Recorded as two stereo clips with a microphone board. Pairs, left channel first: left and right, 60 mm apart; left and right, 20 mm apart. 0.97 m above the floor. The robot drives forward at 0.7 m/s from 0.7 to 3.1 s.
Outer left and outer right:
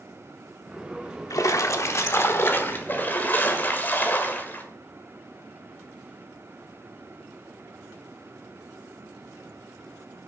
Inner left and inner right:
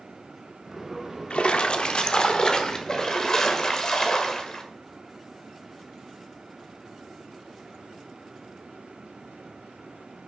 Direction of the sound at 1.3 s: 70° left (ahead or behind).